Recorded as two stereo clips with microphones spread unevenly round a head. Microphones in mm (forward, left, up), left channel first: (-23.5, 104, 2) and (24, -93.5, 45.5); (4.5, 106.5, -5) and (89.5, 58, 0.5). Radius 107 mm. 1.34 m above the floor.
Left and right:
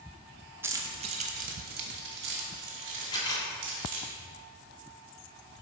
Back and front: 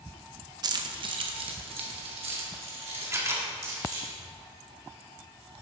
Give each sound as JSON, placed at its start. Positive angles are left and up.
{"t": 0.6, "sound": "keys jangling", "azimuth_deg": -10, "distance_m": 0.6}
{"t": 3.1, "sound": "a camera shutter", "azimuth_deg": 25, "distance_m": 1.5}